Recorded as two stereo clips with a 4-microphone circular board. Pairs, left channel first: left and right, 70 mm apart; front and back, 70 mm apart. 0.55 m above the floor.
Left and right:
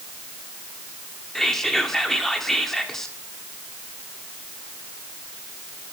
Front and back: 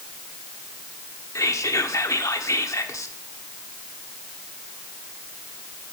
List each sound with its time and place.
1.4 s whispering: 5° left, 0.9 m